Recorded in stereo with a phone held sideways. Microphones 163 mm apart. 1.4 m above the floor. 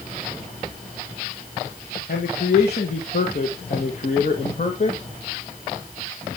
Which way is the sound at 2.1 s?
85° left.